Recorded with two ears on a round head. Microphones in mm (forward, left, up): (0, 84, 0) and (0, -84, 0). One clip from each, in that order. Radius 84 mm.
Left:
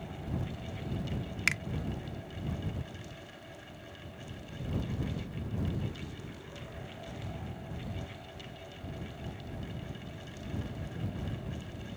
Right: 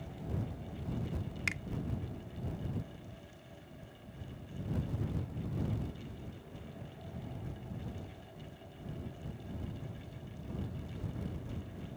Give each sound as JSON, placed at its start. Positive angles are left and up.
{"t": 1.5, "sound": "a finger snap", "side_deg": 30}